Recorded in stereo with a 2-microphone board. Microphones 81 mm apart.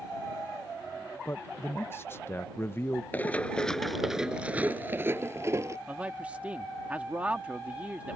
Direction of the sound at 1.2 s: 30° left (ahead or behind).